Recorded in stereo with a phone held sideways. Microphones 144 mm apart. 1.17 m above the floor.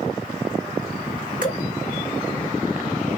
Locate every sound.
1.4 s dripping: 60° left (ahead or behind), 3 m